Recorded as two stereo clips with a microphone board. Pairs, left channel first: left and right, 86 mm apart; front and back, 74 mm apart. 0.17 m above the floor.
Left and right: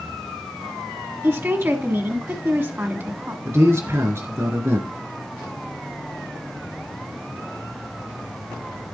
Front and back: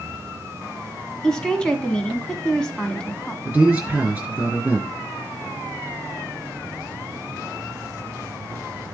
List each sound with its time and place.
1.2 s a woman speaking: 65° right, 1.2 m
3.5 s a man speaking: 120° right, 2 m